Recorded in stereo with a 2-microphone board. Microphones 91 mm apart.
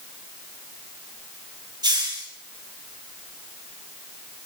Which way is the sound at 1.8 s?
55° right (ahead or behind).